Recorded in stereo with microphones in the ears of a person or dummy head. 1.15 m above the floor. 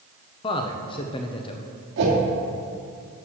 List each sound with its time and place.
0.4 s a man speaking: 25° left (ahead or behind), 0.7 m
2.0 s a whoosh: 65° right (ahead or behind), 2 m